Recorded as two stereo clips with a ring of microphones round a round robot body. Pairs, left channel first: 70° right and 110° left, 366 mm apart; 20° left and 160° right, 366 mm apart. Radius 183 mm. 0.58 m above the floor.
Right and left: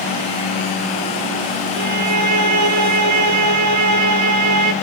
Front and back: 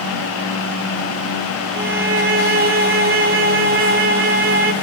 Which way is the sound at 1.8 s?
145° left.